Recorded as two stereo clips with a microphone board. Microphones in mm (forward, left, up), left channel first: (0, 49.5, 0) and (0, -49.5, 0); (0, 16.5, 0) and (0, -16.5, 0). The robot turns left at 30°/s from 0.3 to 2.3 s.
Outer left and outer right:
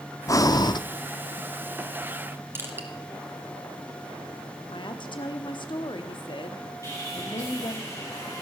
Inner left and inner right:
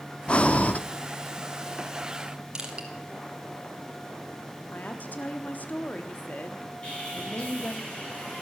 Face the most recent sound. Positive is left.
turn(degrees=30)  # may be behind; listen again after turning